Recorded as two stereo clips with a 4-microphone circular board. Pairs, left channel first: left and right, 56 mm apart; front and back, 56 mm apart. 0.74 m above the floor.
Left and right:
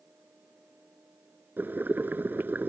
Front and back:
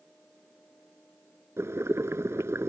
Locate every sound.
1.6 s boiling: 145° right